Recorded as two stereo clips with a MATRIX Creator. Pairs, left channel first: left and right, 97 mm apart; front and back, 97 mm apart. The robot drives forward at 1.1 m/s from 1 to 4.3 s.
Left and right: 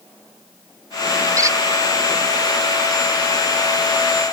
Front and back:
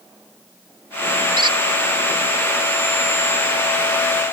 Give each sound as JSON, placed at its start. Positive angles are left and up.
{"t": 1.4, "sound": "a squeak", "azimuth_deg": -145}